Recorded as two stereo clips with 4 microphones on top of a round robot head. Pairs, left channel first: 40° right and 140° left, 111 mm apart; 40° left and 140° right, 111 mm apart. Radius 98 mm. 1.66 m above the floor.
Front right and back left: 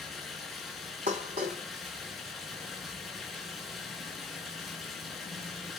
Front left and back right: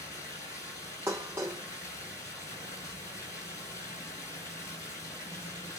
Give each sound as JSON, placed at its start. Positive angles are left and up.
{"t": 0.0, "sound": "running water", "azimuth_deg": 50, "distance_m": 2.5}
{"t": 1.1, "sound": "dishes clattering", "azimuth_deg": 155, "distance_m": 0.7}